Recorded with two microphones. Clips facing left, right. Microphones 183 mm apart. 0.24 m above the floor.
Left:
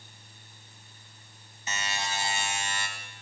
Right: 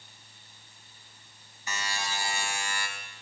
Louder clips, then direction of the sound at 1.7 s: Left 1 dB; 25° left (ahead or behind).